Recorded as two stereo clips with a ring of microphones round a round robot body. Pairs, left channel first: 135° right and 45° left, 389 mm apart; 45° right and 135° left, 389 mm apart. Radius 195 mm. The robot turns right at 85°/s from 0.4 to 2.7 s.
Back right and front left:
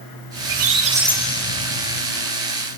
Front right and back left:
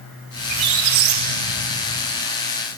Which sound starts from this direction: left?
A squeak, at 0.4 s.